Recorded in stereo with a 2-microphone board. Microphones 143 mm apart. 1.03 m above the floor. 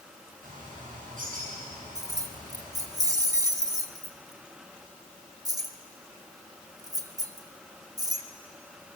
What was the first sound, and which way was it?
A bird, 65° right (ahead or behind).